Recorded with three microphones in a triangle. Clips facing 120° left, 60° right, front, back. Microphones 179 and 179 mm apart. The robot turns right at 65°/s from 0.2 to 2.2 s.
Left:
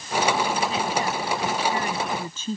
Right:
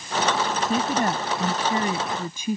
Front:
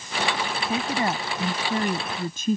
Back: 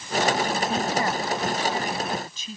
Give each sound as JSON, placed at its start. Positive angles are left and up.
{"t": 0.6, "sound": "a woman speaking", "azimuth_deg": -90}